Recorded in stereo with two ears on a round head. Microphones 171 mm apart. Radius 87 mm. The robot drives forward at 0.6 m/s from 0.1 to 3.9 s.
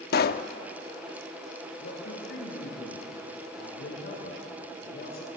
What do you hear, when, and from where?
0.1 s a pop: 55° left (ahead or behind), 0.8 m; by 0.5 s 50° left (ahead or behind), 0.9 m
1.8 s a man speaking: 60° left (ahead or behind), 8.5 m; by 5.4 s 55° left (ahead or behind), 9 m